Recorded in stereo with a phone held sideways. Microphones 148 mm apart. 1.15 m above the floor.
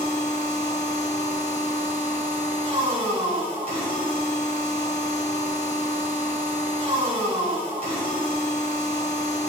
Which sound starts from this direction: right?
A machine running, at 0.0 s.